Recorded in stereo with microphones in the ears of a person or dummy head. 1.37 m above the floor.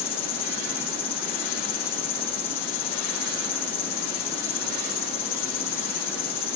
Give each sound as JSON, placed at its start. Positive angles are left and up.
{"t": 0.0, "sound": "an insect", "side_deg": 35, "distance_m": 0.9}